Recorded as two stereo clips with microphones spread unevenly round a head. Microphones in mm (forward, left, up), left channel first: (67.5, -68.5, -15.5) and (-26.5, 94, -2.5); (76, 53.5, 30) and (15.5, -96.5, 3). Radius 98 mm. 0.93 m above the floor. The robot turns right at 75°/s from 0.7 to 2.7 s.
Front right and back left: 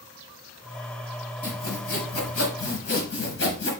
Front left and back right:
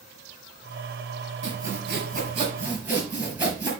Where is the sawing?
125° right, 5 m; by 3.7 s 30° right, 5 m.